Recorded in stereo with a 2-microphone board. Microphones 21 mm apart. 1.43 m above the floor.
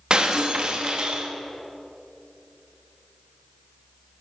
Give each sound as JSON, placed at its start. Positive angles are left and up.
{"t": 0.1, "sound": "breaking glass", "side_deg": -45, "distance_m": 1.0}